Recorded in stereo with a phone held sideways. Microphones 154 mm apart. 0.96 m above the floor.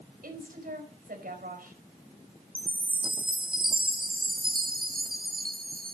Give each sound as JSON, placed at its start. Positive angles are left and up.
{"t": 0.2, "sound": "a woman speaking", "side_deg": -70, "distance_m": 4.5}
{"t": 2.5, "sound": "a chime", "side_deg": -70, "distance_m": 1.3}